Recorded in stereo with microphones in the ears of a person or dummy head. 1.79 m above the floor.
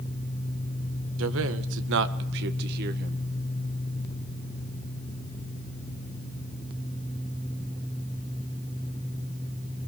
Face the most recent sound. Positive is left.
turn(degrees=-50)  # may be behind; listen again after turning